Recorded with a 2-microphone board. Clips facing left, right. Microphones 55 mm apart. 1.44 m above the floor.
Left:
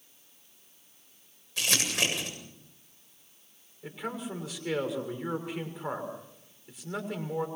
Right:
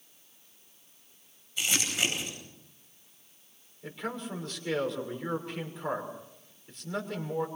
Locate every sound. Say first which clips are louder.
1.6 s crumpling: left 1 dB; 80° left, 8 m
3.8 s a man speaking: even; 10° left (ahead or behind), 6 m